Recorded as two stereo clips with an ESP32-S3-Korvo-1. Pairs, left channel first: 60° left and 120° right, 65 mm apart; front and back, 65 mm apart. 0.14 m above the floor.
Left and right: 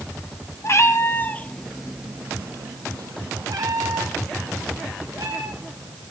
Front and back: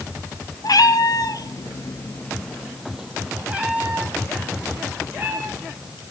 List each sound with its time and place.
0.6 s a cat meowing: 20° left, 0.9 m; by 5.9 s 120° right, 2.5 m